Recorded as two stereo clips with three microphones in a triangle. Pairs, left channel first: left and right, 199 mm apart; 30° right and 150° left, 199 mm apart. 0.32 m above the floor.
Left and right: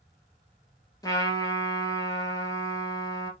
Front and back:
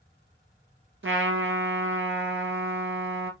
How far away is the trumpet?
About 1.0 m.